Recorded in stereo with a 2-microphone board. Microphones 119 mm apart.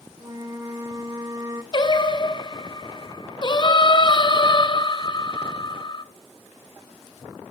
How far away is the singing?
About 0.7 m.